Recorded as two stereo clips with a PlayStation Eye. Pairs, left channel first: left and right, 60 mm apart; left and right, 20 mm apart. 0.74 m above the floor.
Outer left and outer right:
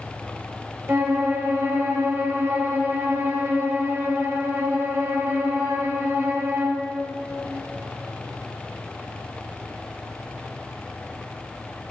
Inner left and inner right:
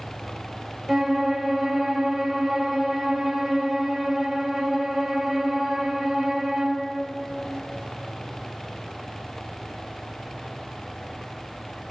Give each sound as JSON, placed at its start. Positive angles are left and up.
{"t": 0.9, "sound": "a violin", "side_deg": -35, "distance_m": 3.5}